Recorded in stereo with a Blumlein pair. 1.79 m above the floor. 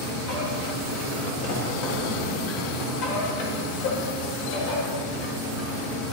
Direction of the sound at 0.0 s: 45° left.